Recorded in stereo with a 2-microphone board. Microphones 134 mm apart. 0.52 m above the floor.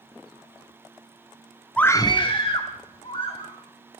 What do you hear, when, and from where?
1.8 s a scream: 10° left (ahead or behind), 0.6 m; by 3.5 s 45° left (ahead or behind), 2.5 m